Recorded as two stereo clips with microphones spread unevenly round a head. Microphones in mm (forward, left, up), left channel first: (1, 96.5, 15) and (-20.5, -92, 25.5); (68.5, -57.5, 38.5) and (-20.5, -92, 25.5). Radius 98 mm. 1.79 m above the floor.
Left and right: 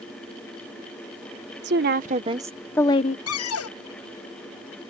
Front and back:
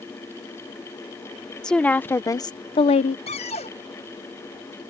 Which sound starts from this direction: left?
A cupboard door, at 3.3 s.